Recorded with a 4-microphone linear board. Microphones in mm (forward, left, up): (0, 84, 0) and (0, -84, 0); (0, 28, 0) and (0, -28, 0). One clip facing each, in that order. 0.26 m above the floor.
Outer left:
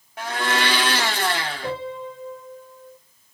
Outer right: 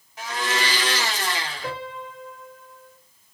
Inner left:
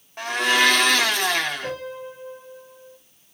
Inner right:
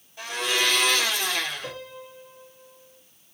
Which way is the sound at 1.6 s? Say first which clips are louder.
Outer left 4 dB, inner left 7 dB; 25° left (ahead or behind).